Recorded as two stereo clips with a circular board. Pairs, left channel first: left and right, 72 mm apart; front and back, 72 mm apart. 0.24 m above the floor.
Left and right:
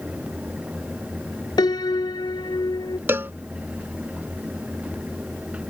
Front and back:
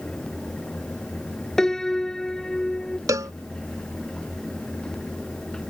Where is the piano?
85° left.